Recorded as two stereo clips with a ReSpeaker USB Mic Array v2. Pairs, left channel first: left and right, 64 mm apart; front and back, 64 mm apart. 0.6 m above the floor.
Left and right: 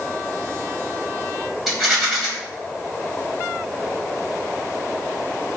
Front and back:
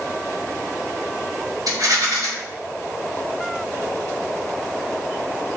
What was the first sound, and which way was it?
A rattle, straight behind.